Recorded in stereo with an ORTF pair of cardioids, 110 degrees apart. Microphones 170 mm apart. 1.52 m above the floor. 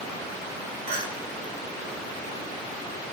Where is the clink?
60° right, 2.5 m.